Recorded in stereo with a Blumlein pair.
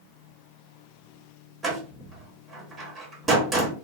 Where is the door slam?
15° right, 1.0 m.